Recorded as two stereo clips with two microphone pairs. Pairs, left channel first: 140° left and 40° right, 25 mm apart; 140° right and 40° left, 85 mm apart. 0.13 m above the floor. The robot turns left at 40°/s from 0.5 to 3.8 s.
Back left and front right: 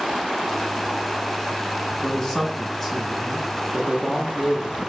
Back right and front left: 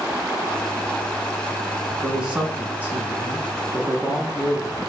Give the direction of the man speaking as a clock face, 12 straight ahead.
8 o'clock.